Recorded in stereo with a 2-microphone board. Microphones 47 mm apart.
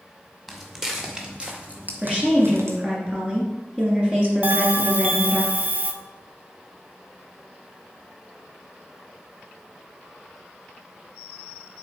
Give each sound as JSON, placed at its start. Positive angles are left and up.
{"t": 0.5, "sound": "footsteps", "side_deg": -5, "distance_m": 2.0}
{"t": 2.0, "sound": "a woman speaking", "side_deg": -25, "distance_m": 2.0}
{"t": 4.4, "sound": "a bell", "side_deg": -35, "distance_m": 0.6}